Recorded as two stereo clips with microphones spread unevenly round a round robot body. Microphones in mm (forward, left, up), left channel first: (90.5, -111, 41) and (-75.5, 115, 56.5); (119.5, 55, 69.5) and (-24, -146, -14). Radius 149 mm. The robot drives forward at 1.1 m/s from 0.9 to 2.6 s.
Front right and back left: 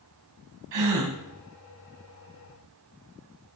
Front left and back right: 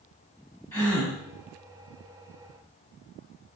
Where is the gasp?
145° left, 1.7 m; by 1.1 s 150° left, 1.9 m.